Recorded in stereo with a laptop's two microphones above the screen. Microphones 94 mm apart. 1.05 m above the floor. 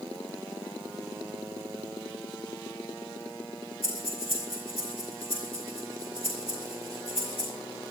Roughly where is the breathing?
Left.